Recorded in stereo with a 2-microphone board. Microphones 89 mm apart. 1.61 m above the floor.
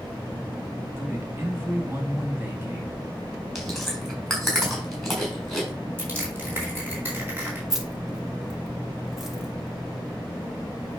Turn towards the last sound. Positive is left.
turn(degrees=-5)  # may be behind; listen again after turning